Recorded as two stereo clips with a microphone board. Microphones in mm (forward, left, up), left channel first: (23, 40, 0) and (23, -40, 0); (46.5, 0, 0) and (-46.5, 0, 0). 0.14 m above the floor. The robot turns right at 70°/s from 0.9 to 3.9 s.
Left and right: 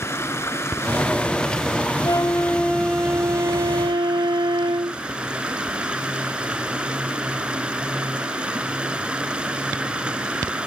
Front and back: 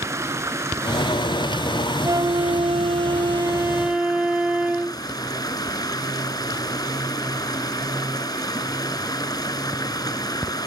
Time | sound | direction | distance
0.0 | running water | 135° left | 1.1 m
2.0 | a flute | 125° left | 0.6 m